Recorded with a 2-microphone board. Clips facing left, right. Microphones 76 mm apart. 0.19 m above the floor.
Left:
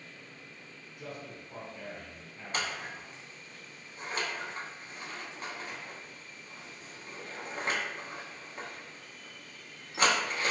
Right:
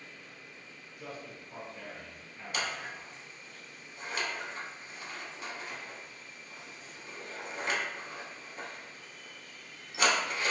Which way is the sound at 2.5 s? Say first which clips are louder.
Left 1 dB; 40° left (ahead or behind).